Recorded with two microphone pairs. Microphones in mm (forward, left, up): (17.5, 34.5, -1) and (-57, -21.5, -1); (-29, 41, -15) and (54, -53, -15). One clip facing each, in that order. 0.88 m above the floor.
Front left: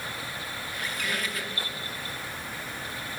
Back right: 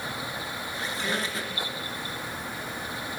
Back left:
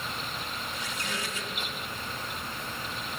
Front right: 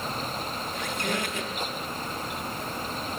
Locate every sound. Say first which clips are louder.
0.7 s a squeak: back right 2 dB, front right 8 dB; 80° right, 0.9 m